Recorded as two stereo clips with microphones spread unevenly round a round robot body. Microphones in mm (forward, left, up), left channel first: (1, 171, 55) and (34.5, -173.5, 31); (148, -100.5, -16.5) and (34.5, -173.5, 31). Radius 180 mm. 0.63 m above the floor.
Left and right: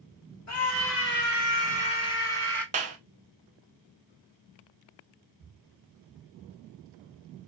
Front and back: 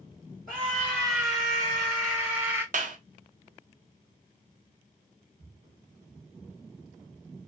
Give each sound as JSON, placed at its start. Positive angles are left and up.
{"t": 0.5, "sound": "a scream", "azimuth_deg": 140, "distance_m": 1.5}
{"t": 2.7, "sound": "a clap", "azimuth_deg": -140, "distance_m": 0.6}